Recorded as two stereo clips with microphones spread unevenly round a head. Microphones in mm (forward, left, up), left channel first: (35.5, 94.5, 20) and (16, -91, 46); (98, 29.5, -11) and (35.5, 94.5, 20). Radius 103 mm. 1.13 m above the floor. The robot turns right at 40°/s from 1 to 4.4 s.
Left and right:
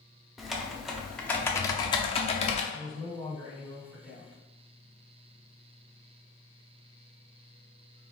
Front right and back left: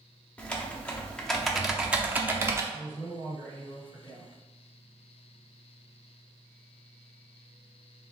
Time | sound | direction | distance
0.4 | typing on a keyboard | straight ahead | 0.6 m
2.7 | a man speaking | 115° right | 2.0 m